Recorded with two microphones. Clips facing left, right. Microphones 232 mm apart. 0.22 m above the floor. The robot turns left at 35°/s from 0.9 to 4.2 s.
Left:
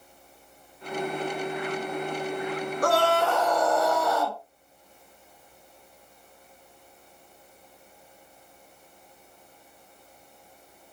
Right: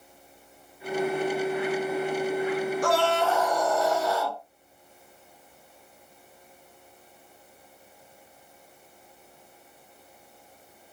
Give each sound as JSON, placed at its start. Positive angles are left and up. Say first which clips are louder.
{"t": 2.8, "sound": "a scream", "louder": "left 5 dB", "azimuth_deg": 110, "distance_m": 3.0}